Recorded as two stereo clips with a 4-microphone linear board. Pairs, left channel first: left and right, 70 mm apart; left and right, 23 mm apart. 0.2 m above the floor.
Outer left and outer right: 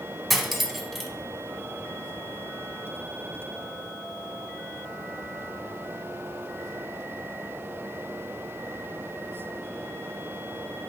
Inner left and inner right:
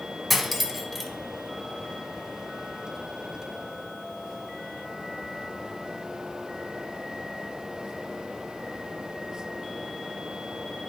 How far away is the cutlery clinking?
About 0.8 m.